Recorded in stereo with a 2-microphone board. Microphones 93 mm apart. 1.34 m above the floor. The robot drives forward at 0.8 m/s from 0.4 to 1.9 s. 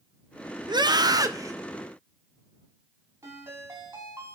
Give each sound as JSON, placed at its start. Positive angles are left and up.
{"t": 0.7, "sound": "a scream", "side_deg": -55, "distance_m": 0.7}
{"t": 3.2, "sound": "a ringtone", "side_deg": -30, "distance_m": 5.5}